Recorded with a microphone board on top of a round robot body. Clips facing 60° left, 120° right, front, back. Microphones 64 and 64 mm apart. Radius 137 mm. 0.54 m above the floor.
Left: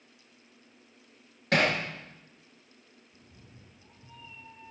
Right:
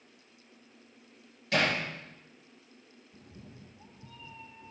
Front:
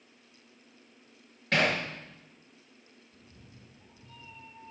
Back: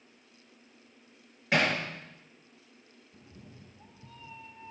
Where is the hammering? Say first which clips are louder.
Left 3 dB, even; 95° left, 6.5 m.